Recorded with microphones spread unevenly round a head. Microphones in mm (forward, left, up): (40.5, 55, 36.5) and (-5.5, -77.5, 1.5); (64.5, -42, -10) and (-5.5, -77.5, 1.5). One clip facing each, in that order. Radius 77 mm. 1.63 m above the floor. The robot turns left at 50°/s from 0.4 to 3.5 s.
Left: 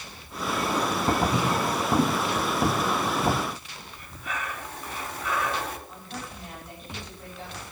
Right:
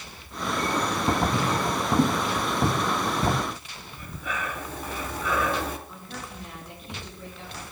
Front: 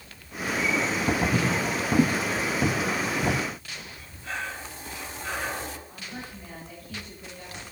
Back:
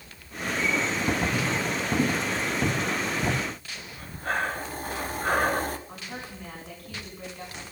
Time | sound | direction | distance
1.3 | footsteps | 55° left | 1.8 m
3.9 | breathing | 115° right | 1.1 m
5.9 | a woman speaking | 145° right | 6 m